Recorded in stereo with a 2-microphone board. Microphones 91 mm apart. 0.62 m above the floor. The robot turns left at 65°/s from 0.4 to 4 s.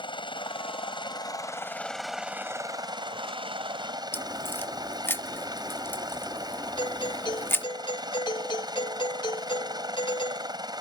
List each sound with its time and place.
0.0 s a helicopter: 110° left; by 10.8 s 125° right
4.1 s a crack: 25° left (ahead or behind)
6.8 s a doorbell: 65° left (ahead or behind)